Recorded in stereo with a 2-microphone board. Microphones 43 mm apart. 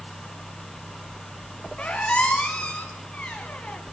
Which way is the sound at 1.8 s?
30° left (ahead or behind).